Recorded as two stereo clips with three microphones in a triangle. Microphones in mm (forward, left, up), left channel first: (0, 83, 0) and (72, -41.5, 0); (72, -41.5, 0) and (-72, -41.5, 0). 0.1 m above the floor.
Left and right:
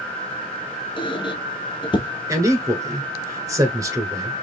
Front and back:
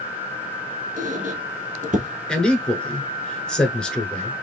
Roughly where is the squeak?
Behind.